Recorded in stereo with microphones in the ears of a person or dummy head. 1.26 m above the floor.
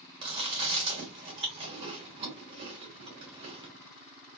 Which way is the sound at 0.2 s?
35° right (ahead or behind).